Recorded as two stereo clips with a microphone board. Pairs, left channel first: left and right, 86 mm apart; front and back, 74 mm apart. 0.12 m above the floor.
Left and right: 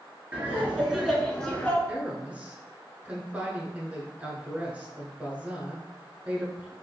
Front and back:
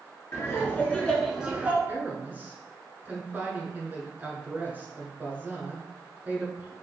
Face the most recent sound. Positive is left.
turn(degrees=-145)